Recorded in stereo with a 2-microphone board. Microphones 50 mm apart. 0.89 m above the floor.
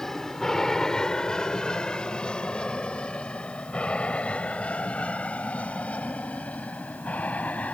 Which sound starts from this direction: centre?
An aircraft, at 0.0 s.